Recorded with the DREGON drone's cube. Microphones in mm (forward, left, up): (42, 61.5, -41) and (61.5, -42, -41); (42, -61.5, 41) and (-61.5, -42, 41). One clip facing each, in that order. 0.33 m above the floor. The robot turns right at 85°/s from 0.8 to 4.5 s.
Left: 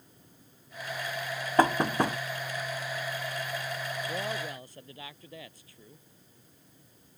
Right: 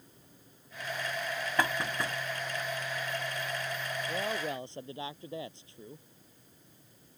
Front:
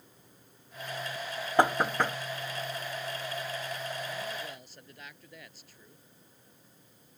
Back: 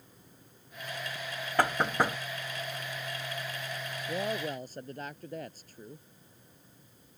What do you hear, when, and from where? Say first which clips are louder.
1.6 s knocking: left 9 dB, front 2 dB; 55° left; by 2.2 s 105° left
4.1 s a woman speaking: right 4 dB, back 5 dB; straight behind; by 6.1 s 145° right